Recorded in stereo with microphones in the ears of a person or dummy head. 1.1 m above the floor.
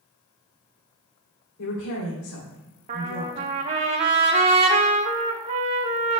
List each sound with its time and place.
1.6 s a woman speaking: 80° left, 3 m
2.9 s a trumpet: 35° right (ahead or behind), 1.1 m